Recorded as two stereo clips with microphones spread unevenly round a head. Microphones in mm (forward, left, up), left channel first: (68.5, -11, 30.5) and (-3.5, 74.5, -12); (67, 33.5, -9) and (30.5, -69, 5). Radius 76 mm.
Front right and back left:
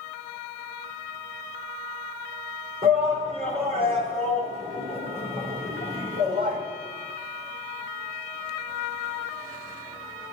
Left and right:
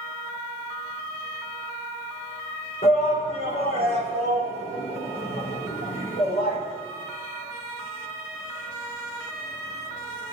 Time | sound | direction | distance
2.8 | a shout | 95° left | 4.5 m